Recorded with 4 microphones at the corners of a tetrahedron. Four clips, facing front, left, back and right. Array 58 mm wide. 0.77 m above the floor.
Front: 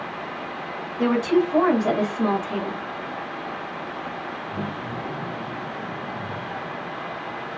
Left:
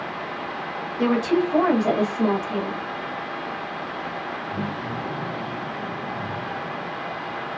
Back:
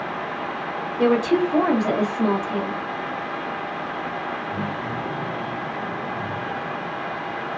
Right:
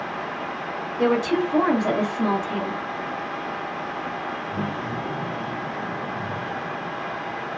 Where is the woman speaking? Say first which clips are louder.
Even, back 1 dB; 150° left, 1.0 m; by 2.8 s straight ahead, 1.1 m.